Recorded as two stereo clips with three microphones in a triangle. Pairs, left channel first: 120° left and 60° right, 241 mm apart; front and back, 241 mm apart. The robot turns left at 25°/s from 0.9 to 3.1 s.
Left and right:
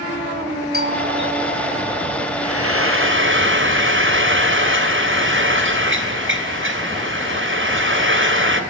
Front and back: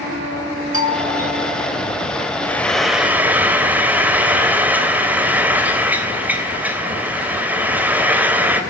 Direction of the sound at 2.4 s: 80° right.